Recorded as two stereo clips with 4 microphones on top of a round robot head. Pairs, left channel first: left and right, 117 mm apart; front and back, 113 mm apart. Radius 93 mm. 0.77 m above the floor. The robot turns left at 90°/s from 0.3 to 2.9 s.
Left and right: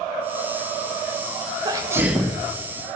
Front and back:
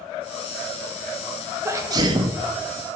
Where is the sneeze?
125° right, 0.6 m; by 2.4 s 170° left, 0.6 m.